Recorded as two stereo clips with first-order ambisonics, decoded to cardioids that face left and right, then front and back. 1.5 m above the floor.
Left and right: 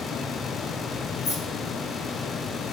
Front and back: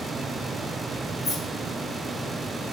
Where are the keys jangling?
70° left, 1.8 m.